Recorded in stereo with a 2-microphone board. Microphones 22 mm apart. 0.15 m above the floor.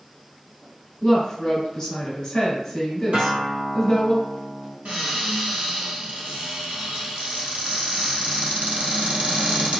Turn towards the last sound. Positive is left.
turn(degrees=-65)  # may be behind; listen again after turning